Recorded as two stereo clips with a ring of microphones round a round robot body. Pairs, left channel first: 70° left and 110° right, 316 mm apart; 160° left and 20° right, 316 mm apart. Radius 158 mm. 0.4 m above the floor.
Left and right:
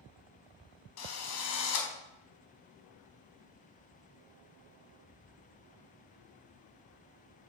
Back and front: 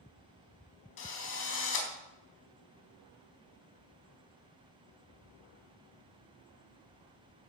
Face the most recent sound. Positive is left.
turn(degrees=110)